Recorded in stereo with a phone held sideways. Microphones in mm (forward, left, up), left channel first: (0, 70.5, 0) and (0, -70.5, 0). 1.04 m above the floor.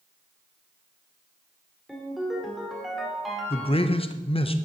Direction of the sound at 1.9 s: Centre (ahead or behind).